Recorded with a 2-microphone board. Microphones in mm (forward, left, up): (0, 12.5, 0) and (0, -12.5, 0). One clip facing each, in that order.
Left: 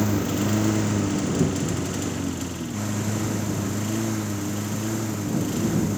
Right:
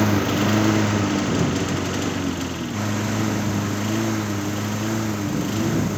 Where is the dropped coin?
I don't hear a dropped coin.